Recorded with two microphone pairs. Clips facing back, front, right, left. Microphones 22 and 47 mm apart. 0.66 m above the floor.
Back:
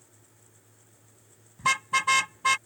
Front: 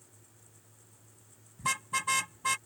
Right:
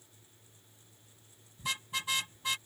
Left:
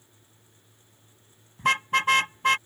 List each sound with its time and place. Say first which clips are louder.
1.6 s a car horn: back 7 dB, left 14 dB; 120° left